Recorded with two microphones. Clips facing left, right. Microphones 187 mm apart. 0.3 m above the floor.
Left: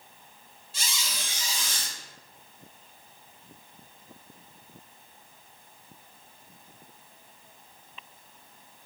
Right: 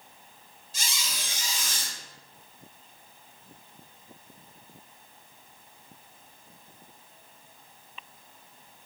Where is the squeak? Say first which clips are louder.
Left 1 dB; 45° right (ahead or behind), 1.1 m.